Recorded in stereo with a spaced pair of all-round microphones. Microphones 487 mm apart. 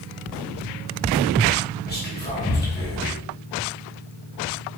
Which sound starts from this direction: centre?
Whispering, at 1.9 s.